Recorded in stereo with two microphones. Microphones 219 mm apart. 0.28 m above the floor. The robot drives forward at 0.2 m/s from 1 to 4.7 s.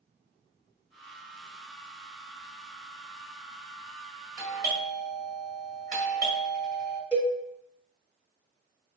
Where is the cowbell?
10° right (ahead or behind), 0.7 m.